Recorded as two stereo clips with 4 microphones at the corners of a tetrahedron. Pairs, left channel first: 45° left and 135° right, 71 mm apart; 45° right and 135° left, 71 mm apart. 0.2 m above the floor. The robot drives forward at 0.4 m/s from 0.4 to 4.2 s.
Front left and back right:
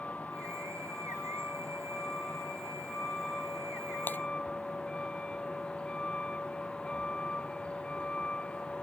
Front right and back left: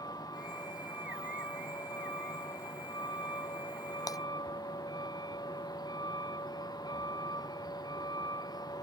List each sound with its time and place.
0.0 s a vehicle: 25° right; by 8.8 s 30° right
4.1 s breaking glass: 15° right; by 4.2 s 20° right